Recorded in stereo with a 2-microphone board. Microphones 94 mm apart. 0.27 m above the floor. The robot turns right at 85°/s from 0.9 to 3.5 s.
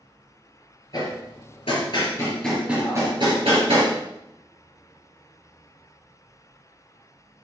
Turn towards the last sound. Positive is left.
turn(degrees=-75)  # may be behind; listen again after turning